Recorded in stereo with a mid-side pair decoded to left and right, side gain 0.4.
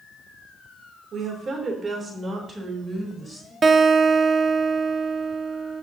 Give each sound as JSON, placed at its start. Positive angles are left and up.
{"t": 1.1, "sound": "a woman speaking", "azimuth_deg": -65, "distance_m": 3.0}
{"t": 3.6, "sound": "a guitar", "azimuth_deg": -40, "distance_m": 1.1}